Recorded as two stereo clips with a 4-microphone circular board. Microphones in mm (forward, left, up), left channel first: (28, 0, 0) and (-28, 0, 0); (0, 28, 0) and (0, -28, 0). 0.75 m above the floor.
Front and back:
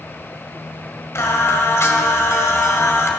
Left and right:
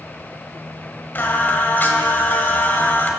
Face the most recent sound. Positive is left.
turn(degrees=35)